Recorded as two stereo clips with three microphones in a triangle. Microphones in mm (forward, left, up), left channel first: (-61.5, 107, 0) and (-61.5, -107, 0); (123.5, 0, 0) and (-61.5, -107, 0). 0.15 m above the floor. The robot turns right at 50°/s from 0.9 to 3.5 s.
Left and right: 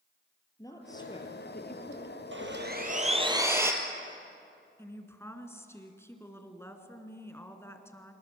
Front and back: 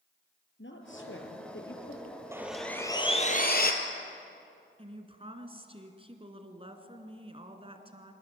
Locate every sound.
0.6 s a woman speaking: 15° left, 3 m; by 2.2 s 85° left, 3 m
2.3 s sawing: 70° right, 2 m; by 3.7 s 15° right, 2 m
4.8 s a woman speaking: 160° left, 2.0 m